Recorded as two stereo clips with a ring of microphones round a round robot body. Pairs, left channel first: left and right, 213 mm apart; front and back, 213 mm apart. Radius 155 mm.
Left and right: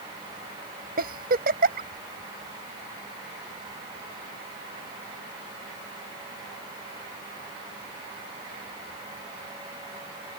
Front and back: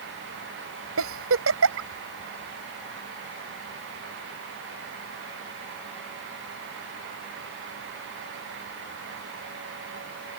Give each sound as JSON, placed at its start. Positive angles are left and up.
{"t": 1.0, "sound": "a giggle", "azimuth_deg": -150}